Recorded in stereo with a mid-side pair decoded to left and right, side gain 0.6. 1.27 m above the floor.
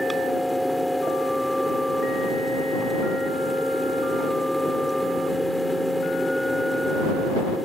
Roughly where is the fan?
Ahead.